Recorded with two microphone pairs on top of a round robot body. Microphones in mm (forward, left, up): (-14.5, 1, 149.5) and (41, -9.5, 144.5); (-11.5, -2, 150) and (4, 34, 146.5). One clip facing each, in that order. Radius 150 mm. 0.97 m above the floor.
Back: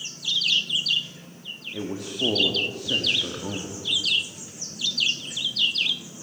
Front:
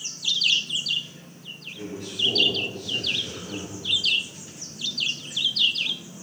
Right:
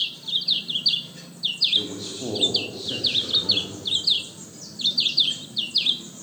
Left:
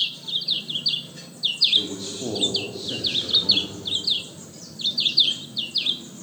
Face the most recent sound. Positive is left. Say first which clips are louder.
# back 3 dB, left 2 dB
turn(degrees=160)